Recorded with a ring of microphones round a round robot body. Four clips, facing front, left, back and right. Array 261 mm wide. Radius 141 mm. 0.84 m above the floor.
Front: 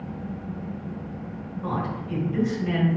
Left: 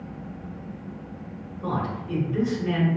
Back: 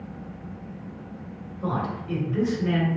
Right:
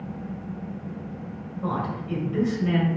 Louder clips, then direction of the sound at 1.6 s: Even, back 1 dB; 155° right.